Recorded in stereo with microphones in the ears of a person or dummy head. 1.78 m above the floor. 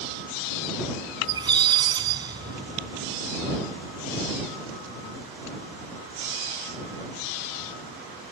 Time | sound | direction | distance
1.2 | a squeak | 25° right (ahead or behind) | ?